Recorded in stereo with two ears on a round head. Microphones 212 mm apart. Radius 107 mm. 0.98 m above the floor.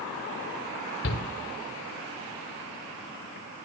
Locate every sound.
1.0 s a shout: 50° left (ahead or behind), 3.5 m